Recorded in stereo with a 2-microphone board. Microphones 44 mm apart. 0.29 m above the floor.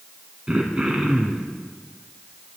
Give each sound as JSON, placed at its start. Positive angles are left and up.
{"t": 0.5, "sound": "throat clearing", "side_deg": -25, "distance_m": 1.7}